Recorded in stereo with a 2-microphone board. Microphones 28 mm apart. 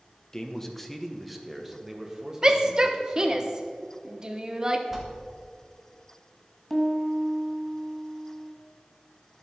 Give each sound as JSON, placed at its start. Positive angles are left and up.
{"t": 0.3, "sound": "a man speaking", "side_deg": 25, "distance_m": 1.1}
{"t": 2.4, "sound": "a shout", "side_deg": -30, "distance_m": 1.1}
{"t": 4.9, "sound": "a bell", "side_deg": -10, "distance_m": 1.9}
{"t": 6.7, "sound": "a piano", "side_deg": 5, "distance_m": 1.4}